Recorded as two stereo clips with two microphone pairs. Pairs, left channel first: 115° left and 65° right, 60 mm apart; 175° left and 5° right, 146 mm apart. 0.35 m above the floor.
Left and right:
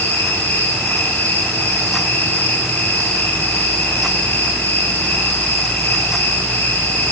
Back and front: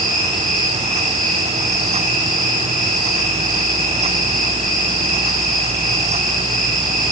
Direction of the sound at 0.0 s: 170° left.